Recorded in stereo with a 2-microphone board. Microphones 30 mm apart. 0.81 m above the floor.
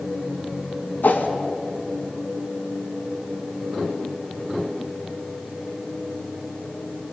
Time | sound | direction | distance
1.0 | a whoosh | 75° left (ahead or behind) | 2 m